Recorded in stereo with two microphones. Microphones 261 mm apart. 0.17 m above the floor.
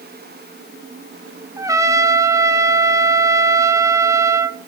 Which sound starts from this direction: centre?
A trumpet, at 1.6 s.